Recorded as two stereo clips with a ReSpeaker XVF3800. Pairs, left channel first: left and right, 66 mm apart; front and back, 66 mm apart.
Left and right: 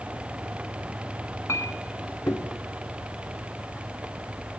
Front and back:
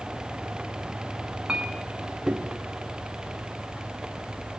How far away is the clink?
About 1.3 m.